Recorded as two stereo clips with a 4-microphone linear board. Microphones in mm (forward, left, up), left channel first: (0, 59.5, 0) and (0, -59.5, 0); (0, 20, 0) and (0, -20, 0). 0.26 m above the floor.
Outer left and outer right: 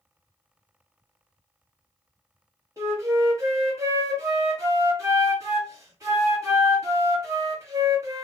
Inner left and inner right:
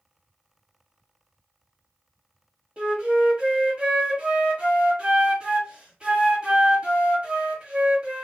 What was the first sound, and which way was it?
A flute, 25° right (ahead or behind).